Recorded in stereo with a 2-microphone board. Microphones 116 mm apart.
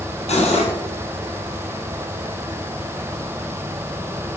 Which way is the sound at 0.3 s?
70° left (ahead or behind).